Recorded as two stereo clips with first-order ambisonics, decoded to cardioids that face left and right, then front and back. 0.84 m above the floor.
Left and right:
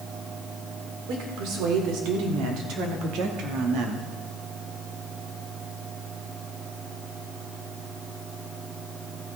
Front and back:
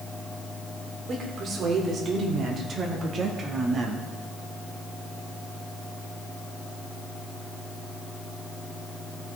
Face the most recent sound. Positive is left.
turn(degrees=-115)